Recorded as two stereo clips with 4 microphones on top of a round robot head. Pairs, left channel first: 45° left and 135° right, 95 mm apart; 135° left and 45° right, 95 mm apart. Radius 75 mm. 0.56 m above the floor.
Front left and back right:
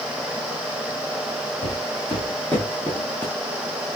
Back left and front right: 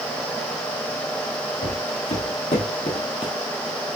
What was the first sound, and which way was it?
Footsteps, 130° left.